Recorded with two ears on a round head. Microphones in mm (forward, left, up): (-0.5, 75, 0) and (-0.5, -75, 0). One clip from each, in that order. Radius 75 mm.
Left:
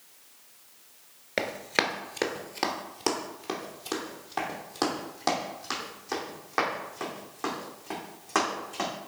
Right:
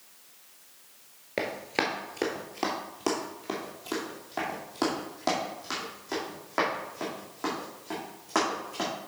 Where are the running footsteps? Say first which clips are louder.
Left 2 dB; 30° left (ahead or behind), 0.9 m; by 8.9 s 15° left (ahead or behind), 4.5 m.